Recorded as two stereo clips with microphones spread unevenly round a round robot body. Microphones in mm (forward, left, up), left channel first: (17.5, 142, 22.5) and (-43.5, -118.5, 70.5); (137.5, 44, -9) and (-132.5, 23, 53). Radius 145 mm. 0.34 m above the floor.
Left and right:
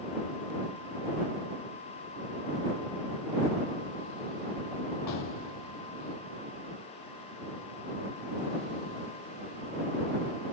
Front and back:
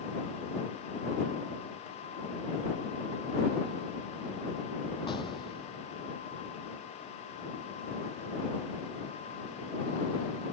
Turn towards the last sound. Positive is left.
turn(degrees=80)